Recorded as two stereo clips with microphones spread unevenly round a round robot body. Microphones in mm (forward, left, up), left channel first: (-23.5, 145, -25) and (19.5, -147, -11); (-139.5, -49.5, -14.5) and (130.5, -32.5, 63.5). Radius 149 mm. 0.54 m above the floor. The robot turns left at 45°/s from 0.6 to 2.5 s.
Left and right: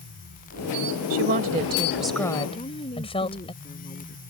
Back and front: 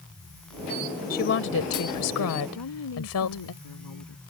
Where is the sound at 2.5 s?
170° left.